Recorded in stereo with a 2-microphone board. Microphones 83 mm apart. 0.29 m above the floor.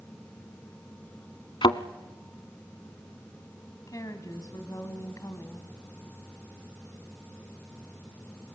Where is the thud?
80° left, 0.8 m.